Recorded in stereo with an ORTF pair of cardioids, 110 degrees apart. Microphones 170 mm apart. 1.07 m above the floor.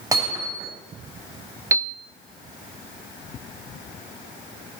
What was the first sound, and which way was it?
Hammering, 20° right.